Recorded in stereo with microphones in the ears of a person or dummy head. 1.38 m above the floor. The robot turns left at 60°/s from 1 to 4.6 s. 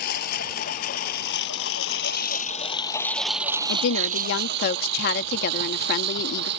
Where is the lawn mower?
60° left (ahead or behind); by 6.6 s 70° right (ahead or behind).